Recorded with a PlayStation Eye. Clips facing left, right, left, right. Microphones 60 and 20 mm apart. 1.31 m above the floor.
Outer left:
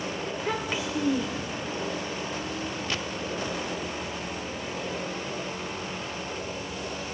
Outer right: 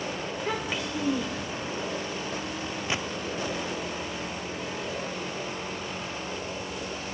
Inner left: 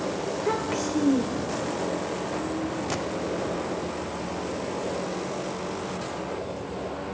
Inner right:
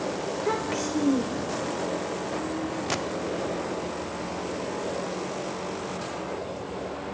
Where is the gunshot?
20° right (ahead or behind), 0.6 m.